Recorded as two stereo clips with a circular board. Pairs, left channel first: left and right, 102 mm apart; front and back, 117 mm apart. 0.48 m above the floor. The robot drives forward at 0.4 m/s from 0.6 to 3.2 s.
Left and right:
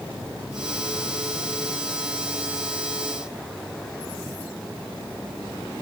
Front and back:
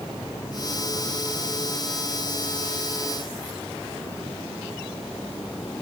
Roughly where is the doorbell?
No doorbell in this recording.